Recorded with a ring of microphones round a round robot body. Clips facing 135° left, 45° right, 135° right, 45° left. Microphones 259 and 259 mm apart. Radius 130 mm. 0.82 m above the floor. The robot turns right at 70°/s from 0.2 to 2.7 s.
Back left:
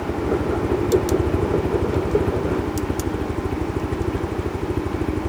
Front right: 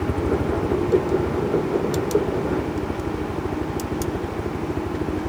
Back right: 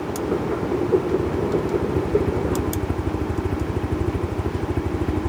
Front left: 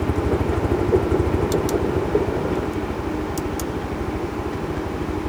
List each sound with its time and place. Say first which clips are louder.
0.0 s a helicopter: even, front left 2 dB; 25° left; by 5.3 s 160° right